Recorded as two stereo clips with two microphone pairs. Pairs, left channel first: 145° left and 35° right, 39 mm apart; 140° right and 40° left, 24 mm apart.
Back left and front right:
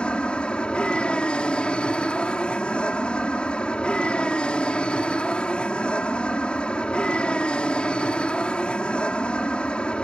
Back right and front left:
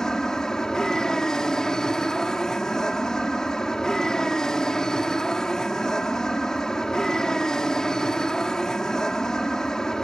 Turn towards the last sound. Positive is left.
turn(degrees=175)